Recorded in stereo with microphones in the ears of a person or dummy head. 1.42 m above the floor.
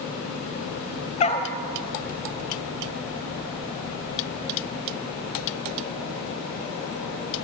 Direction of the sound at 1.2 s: 35° left (ahead or behind).